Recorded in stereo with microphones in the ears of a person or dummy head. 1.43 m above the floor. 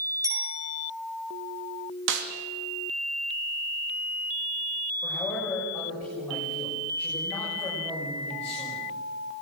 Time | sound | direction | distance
0.2 | a bicycle bell | 15° right (ahead or behind) | 4.5 m
2.1 | a snare drum | 65° right (ahead or behind) | 2 m
5.0 | a man speaking | 15° left (ahead or behind) | 6.5 m